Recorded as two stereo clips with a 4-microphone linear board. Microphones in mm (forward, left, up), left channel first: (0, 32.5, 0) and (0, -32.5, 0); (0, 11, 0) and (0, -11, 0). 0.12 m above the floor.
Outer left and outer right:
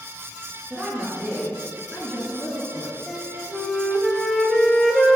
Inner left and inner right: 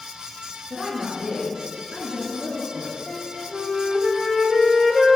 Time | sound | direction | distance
0.7 | a woman speaking | 30° right (ahead or behind) | 2.0 m
3.1 | a flute | 5° left (ahead or behind) | 0.5 m